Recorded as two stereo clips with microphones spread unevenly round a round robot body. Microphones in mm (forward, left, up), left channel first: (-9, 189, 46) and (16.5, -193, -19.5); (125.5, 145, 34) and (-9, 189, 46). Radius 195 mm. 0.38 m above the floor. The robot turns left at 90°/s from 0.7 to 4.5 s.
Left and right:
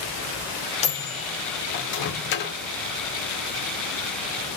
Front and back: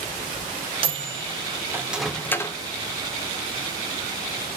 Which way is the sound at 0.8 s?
175° left.